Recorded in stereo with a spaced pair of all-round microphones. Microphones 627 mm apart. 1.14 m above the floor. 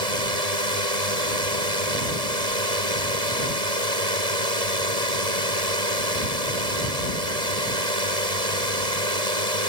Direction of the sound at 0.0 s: 75° right (ahead or behind).